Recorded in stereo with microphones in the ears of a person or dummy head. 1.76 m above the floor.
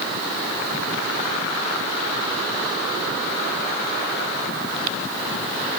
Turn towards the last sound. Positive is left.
No sound to turn to.